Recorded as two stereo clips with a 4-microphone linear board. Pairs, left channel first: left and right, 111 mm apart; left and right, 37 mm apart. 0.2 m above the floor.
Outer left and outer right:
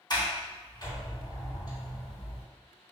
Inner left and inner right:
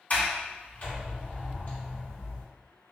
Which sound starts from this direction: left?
A sliding door, at 0.1 s.